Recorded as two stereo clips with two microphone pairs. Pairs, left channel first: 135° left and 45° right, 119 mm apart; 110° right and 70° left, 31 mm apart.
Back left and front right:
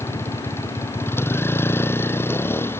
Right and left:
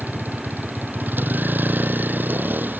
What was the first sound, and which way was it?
A vehicle, 65° left.